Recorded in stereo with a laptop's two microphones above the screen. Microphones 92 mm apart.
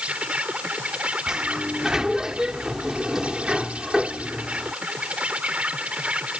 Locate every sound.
0.0 s an insect: 15° right (ahead or behind)
1.3 s a sliding door: 5° right (ahead or behind)